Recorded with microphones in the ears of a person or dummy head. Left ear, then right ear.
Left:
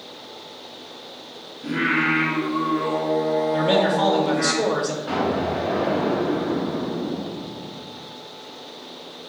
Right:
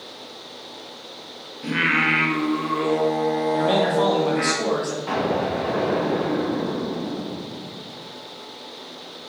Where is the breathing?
No breathing in this recording.